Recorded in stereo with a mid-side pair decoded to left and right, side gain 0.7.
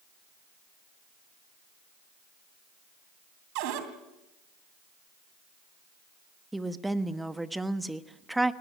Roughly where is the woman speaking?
Ahead.